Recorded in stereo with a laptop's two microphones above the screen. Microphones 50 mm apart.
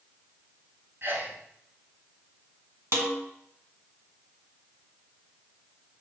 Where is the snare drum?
65° right (ahead or behind), 1.4 m.